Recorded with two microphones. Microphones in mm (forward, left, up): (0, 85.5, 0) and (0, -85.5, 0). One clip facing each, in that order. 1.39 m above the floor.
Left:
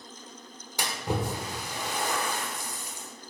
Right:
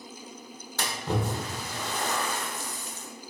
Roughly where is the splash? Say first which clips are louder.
Even; centre.